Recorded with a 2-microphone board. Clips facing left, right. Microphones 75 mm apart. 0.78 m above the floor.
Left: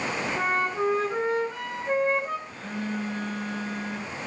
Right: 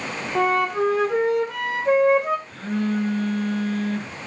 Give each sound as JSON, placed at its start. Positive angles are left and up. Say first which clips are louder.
{"t": 0.3, "sound": "a flute", "louder": "right 8 dB", "side_deg": -80, "distance_m": 3.0}
{"t": 2.5, "sound": "a phone buzzing", "louder": "right 8 dB", "side_deg": -75, "distance_m": 5.0}